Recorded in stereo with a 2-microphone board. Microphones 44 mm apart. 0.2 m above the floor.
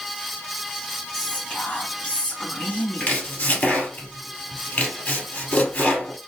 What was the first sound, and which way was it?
Whispering, 30° left (ahead or behind).